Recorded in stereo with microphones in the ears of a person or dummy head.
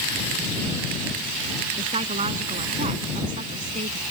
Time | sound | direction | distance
1.8 | a woman speaking | 30° right (ahead or behind) | ?